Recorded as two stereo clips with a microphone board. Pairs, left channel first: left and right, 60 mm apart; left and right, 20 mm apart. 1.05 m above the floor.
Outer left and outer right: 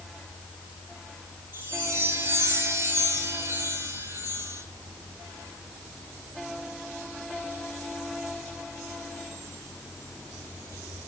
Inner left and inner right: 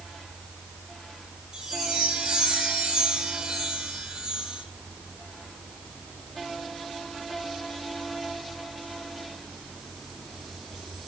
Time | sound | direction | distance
1.5 | a chime | 40° right (ahead or behind) | 4 m